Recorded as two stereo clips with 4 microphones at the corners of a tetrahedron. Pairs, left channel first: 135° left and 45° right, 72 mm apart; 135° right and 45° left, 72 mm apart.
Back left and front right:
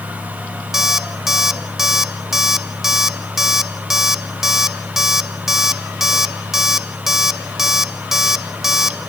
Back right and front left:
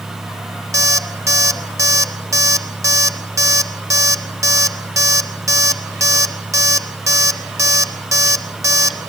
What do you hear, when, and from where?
0.7 s an alarm clock: 35° left, 0.7 m